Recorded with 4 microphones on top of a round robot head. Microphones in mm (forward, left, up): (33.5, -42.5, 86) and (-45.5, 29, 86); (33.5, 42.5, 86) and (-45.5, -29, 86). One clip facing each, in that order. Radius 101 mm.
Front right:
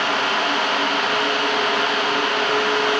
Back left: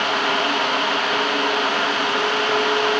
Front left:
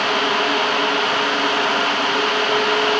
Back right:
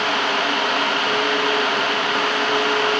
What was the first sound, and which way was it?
Only background noise.